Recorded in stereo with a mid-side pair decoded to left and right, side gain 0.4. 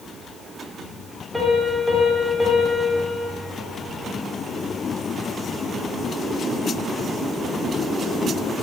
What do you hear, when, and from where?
1.3 s a piano: 5° left, 3.5 m